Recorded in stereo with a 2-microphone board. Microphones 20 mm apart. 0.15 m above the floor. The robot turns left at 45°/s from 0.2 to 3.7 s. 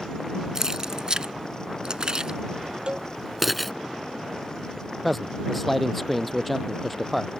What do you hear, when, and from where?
0.6 s keys jangling: 25° right (ahead or behind); by 3.7 s 5° left (ahead or behind)
2.9 s a cowbell: 50° right (ahead or behind); by 3.1 s 40° right (ahead or behind)
5.0 s a man speaking: 5° left (ahead or behind)